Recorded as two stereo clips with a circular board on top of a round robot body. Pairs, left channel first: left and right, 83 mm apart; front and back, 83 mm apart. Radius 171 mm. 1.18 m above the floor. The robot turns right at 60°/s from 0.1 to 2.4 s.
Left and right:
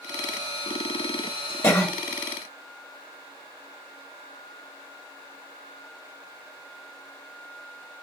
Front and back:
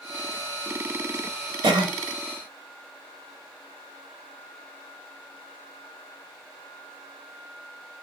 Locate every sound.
1.6 s a cough: 145° left, 1.1 m; by 1.9 s 165° left, 1.1 m